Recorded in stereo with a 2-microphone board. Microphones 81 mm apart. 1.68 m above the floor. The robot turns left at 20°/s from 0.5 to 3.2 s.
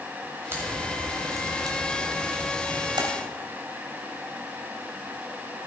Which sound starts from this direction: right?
A crack, at 0.5 s.